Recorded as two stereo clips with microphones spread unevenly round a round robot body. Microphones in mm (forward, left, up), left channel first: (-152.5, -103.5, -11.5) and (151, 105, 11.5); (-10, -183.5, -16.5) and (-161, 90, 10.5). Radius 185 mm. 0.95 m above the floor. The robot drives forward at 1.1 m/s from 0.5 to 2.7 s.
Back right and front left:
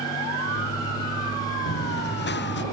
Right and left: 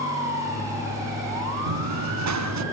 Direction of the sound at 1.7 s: 150° left.